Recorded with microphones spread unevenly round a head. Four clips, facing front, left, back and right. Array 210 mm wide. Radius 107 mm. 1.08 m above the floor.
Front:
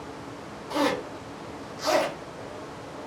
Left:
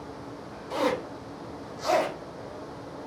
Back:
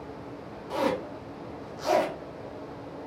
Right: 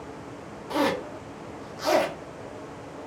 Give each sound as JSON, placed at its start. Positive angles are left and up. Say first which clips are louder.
{"t": 0.7, "sound": "a zipper", "louder": "right 2 dB, front 2 dB", "azimuth_deg": -90, "distance_m": 1.1}